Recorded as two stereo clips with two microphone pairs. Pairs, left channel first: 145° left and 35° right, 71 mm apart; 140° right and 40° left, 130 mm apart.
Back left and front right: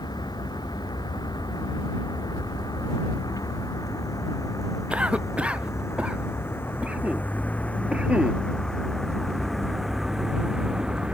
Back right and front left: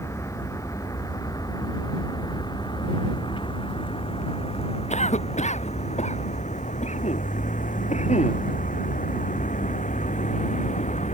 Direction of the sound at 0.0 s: 155° left.